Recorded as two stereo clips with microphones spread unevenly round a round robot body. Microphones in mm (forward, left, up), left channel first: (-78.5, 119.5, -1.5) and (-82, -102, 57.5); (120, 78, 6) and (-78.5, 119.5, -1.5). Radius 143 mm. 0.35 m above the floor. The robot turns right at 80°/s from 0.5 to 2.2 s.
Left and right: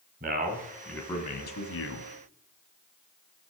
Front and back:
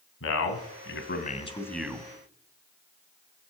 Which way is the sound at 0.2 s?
25° right.